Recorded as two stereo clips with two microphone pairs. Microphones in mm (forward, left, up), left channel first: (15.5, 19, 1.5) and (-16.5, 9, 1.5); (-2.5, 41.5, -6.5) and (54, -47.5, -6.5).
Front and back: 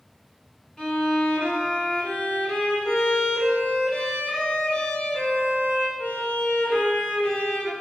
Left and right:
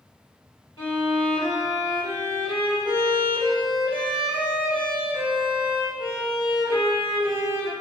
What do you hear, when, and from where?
0.8 s a violin: 85° left, 1.9 m